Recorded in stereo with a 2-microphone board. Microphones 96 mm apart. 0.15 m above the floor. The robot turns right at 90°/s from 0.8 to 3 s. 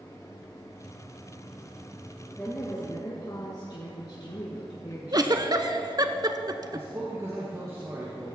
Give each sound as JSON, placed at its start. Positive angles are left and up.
{"t": 2.4, "sound": "a woman speaking", "azimuth_deg": 10, "distance_m": 2.0}
{"t": 5.1, "sound": "a giggle", "side_deg": -45, "distance_m": 0.6}
{"t": 6.7, "sound": "a man speaking", "side_deg": -30, "distance_m": 2.5}